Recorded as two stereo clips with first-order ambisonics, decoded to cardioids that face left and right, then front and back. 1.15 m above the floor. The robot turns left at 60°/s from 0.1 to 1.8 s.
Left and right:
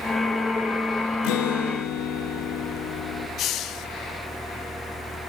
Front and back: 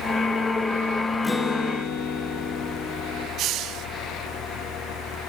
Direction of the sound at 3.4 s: 135° left.